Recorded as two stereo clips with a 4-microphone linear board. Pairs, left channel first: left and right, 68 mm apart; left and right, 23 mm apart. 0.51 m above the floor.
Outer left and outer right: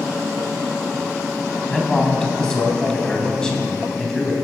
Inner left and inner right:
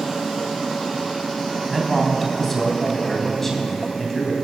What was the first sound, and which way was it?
A man speaking, 10° left (ahead or behind).